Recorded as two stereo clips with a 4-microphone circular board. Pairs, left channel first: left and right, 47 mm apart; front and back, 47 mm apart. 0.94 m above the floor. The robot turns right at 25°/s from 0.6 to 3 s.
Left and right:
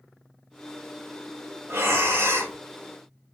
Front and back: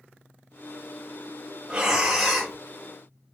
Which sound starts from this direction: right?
Breathing, at 1.7 s.